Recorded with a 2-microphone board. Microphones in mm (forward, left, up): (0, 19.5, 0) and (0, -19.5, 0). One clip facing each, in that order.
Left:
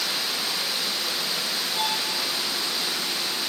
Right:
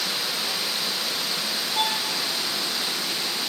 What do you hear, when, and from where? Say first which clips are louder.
1.7 s a violin: right 3 dB; 30° right (ahead or behind), 7.5 m